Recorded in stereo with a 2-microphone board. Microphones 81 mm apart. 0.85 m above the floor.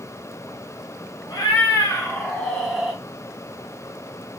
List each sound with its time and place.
1.3 s a cat meowing: 55° left (ahead or behind), 1.0 m; by 3.0 s 15° right (ahead or behind), 0.7 m